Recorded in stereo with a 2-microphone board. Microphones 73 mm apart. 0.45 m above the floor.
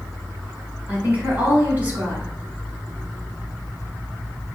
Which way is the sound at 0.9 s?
20° right (ahead or behind).